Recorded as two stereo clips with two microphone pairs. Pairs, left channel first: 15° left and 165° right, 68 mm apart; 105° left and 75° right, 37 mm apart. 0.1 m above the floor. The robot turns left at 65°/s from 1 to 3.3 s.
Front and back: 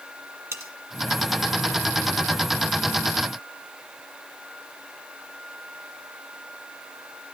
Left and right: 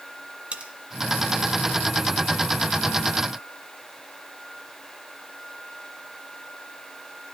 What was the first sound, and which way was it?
Cutlery clinking, 120° right.